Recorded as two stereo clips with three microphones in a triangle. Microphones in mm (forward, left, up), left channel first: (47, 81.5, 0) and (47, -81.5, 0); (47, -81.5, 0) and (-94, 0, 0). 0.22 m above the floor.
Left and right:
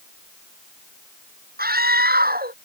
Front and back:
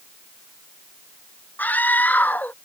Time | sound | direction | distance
1.6 | a scream | 110° right | ?